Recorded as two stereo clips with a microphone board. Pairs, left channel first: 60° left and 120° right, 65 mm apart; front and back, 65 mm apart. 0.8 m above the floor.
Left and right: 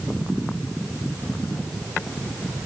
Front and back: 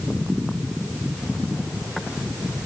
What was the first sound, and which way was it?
Only background noise.